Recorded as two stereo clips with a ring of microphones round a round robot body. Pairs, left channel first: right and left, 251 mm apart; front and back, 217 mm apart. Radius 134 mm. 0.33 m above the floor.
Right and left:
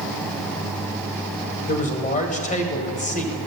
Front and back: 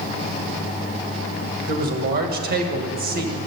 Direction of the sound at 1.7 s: 145° right.